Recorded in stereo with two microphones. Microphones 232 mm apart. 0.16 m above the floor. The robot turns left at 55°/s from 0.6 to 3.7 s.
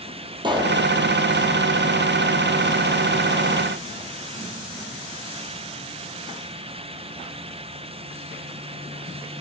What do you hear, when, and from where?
0.4 s a pop: 20° right (ahead or behind), 1.3 m; by 0.8 s 30° right (ahead or behind), 1.3 m